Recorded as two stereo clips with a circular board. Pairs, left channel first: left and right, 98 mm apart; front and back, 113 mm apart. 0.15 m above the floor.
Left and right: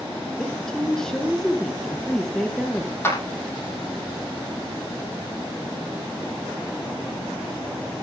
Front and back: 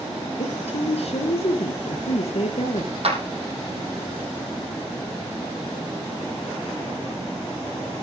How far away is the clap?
About 5 m.